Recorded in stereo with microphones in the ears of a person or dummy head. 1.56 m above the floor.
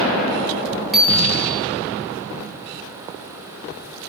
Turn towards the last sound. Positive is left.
turn(degrees=0)  # may be behind; listen again after turning